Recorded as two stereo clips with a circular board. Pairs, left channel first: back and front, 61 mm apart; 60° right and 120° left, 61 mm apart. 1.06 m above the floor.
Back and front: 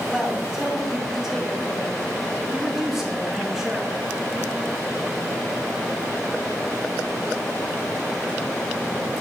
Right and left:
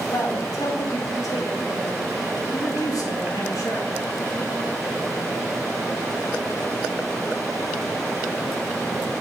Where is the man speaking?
85° right, 1.6 m.